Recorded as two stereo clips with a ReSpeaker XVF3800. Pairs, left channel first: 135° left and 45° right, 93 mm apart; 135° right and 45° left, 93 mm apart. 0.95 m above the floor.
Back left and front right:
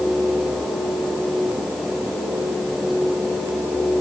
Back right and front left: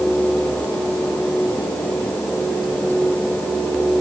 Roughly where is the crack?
I don't hear a crack.